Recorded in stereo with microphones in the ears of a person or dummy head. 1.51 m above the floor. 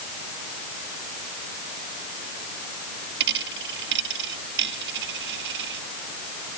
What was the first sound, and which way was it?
A dropped coin, 70° right (ahead or behind).